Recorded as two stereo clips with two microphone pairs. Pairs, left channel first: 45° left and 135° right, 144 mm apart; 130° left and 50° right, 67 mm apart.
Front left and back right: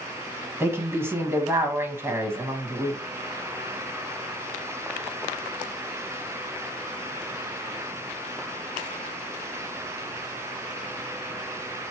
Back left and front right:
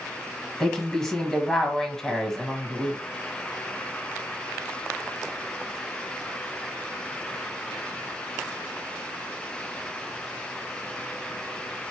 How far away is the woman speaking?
About 1.0 m.